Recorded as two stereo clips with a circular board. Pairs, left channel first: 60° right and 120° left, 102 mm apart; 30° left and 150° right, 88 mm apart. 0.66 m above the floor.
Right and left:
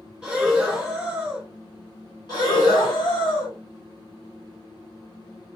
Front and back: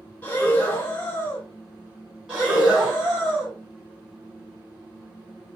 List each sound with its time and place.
0.2 s breathing: 55° left, 0.9 m
2.3 s breathing: 75° right, 1.4 m